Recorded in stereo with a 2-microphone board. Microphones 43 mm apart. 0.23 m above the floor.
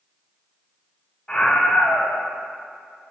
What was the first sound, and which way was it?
A scream, 20° left (ahead or behind).